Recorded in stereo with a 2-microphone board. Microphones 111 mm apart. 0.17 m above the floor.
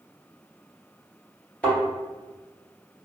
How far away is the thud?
About 1.6 m.